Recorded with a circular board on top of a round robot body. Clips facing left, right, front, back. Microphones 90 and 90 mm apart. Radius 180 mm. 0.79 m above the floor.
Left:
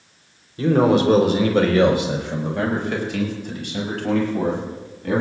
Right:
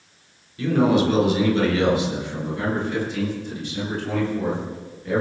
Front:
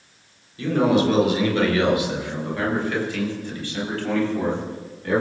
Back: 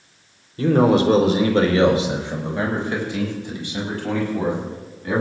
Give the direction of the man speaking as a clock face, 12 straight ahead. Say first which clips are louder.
Left 2 dB, back 3 dB; 7 o'clock.